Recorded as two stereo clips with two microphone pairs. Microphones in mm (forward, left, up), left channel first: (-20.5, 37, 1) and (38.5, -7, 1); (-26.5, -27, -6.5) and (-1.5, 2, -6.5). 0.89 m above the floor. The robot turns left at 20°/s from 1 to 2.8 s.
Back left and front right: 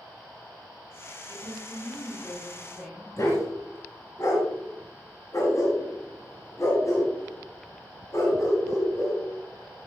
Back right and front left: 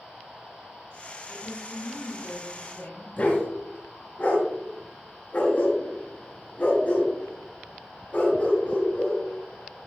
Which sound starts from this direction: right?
A woman speaking, at 1.3 s.